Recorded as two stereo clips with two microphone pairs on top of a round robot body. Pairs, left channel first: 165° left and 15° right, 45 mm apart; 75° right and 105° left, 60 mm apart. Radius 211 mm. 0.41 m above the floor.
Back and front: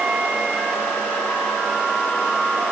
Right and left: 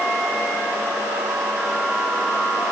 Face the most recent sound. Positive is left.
No sound to turn to.